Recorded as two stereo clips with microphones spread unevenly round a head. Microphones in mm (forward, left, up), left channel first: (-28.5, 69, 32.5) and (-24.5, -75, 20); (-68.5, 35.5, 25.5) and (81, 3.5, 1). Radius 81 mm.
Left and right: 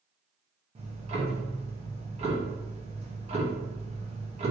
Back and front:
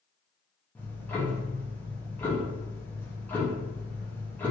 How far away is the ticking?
About 0.8 m.